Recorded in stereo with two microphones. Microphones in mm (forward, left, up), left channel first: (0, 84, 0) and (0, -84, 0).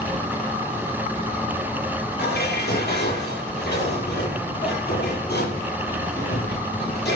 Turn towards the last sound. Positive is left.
turn(degrees=80)